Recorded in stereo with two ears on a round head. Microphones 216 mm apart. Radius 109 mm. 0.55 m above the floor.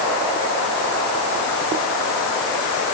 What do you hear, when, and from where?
Only background noise.